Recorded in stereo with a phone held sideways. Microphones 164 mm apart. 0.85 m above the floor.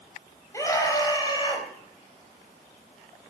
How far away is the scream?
About 4.5 m.